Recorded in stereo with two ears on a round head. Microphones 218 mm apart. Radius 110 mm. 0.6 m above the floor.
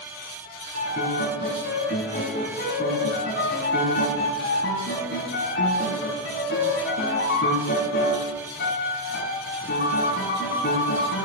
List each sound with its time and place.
0.7 s a piano: 45° left (ahead or behind), 4 m